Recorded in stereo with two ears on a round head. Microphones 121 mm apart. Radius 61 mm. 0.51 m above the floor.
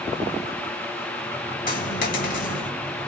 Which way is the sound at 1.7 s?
65° left (ahead or behind).